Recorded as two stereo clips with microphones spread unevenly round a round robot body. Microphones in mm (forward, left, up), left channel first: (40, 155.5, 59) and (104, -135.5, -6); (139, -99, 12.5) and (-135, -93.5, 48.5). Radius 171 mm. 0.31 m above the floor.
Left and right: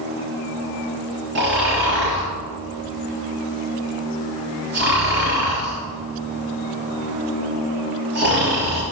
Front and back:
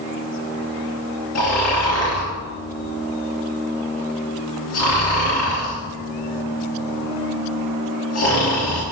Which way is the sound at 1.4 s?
30° right.